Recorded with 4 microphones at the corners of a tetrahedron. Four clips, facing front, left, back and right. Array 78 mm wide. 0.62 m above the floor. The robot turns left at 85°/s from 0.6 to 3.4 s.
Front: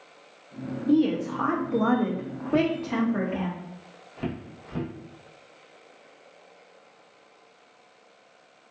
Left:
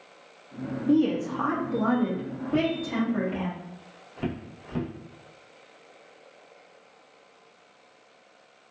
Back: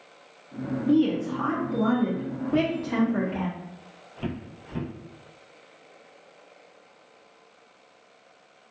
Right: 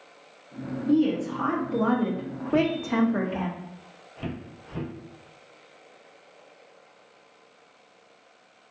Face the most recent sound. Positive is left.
turn(degrees=55)